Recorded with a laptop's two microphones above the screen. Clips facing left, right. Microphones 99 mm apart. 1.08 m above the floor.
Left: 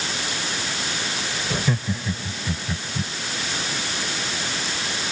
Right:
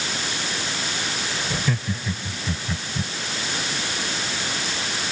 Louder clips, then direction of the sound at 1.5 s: Left 3 dB; 15° left (ahead or behind).